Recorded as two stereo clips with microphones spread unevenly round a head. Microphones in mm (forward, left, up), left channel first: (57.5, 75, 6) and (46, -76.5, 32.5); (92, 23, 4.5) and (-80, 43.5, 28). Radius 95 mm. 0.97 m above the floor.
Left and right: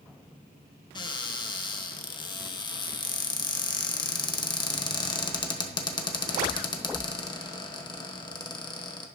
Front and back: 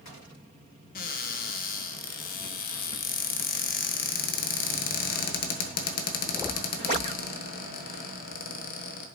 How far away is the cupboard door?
About 1.1 m.